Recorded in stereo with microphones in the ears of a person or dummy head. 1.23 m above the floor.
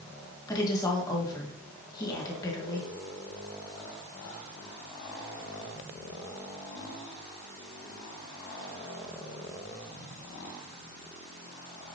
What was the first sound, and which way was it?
A woman speaking, 20° left (ahead or behind).